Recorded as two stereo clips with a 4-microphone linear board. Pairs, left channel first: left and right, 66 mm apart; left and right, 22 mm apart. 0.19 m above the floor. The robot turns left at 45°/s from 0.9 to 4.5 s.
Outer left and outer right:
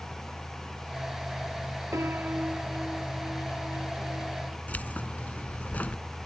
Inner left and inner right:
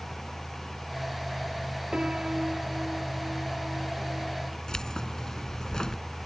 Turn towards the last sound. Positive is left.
turn(degrees=25)  # may be behind; listen again after turning